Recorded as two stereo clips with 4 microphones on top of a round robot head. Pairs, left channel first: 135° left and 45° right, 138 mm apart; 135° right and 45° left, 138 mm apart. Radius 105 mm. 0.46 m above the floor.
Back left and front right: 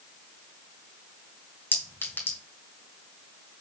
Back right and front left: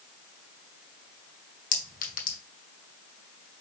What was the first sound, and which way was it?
A clink, 150° right.